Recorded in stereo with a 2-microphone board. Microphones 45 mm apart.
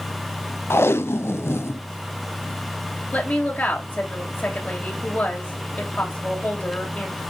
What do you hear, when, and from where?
0.7 s tape being pulled: 65° left (ahead or behind), 0.6 m
3.1 s a woman speaking: 40° left (ahead or behind), 3 m